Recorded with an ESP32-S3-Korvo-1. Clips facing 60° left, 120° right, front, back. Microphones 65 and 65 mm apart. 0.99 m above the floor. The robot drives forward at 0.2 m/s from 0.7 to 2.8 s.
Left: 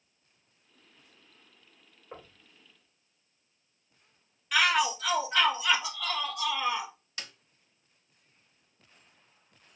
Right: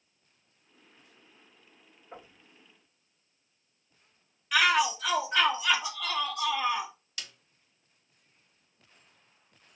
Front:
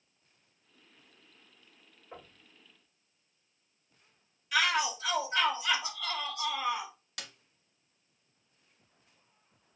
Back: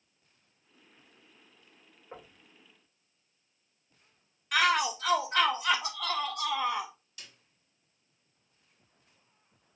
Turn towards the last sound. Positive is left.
turn(degrees=0)